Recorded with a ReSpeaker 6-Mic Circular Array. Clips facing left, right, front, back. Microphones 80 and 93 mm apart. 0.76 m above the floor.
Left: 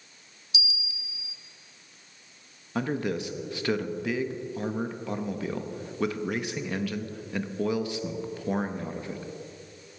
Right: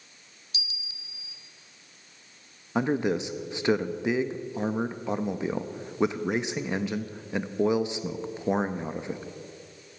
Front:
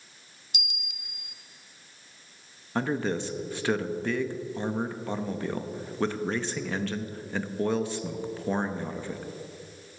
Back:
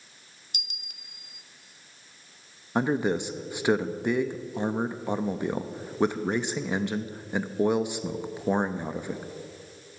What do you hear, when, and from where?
0.5 s a bell: 135° right, 0.8 m
2.8 s a man speaking: 125° right, 0.6 m